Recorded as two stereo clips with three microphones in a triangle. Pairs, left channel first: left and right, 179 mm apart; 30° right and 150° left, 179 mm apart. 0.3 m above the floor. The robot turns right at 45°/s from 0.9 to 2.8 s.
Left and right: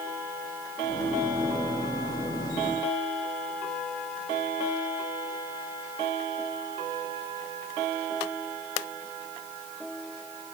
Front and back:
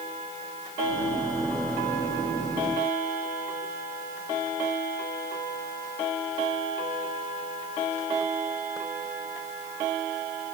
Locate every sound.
Only background noise.